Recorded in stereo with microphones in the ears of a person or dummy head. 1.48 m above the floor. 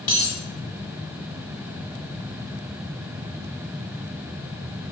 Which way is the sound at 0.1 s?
20° left (ahead or behind).